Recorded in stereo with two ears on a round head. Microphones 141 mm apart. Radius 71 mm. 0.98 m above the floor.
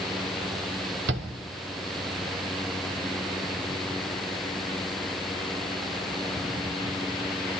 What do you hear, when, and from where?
1.1 s a shout: 70° right (ahead or behind), 3 m